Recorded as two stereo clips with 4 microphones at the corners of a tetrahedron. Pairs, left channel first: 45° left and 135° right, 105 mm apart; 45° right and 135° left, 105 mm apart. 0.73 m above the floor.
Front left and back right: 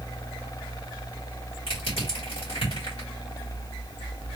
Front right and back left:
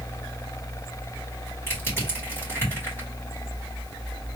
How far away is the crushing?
About 2.5 m.